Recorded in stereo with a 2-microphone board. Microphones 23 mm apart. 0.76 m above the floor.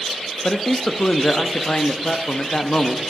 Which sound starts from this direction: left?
A man speaking, at 0.4 s.